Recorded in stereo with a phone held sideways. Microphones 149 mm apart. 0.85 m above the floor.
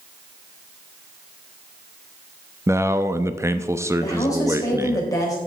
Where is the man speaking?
20° right (ahead or behind), 0.7 m.